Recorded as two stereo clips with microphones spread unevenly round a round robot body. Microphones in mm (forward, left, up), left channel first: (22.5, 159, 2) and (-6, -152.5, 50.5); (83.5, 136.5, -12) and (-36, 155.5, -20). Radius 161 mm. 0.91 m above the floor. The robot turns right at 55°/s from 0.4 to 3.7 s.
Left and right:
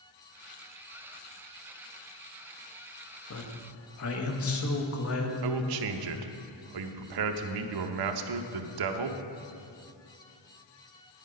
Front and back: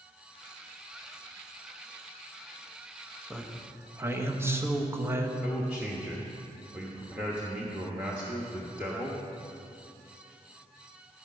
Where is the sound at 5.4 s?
110° right, 0.8 m.